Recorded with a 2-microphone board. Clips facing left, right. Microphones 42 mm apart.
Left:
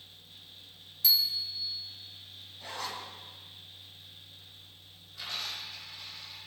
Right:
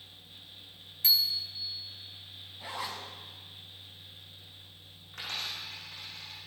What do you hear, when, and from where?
1.0 s a bicycle bell: 40° right (ahead or behind), 2 m
2.6 s a zipper: 15° right (ahead or behind), 3 m
5.1 s a dropped coin: 65° right (ahead or behind), 9 m